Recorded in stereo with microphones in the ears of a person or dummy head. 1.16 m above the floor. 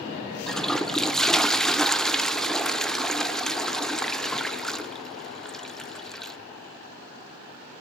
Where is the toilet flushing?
Centre (ahead or behind), 0.7 m.